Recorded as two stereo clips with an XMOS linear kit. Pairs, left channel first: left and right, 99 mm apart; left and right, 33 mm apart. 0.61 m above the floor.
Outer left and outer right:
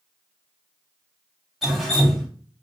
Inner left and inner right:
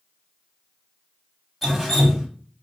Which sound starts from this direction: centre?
Dripping, at 1.6 s.